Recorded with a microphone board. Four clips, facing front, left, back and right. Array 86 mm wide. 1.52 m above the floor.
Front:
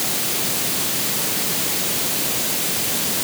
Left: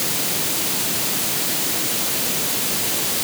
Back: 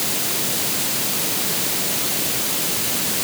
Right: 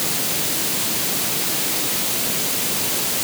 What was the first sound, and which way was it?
Only background noise.